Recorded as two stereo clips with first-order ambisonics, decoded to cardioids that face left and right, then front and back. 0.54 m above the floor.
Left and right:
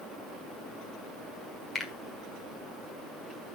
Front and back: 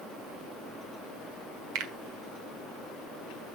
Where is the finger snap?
165° left, 1.5 m.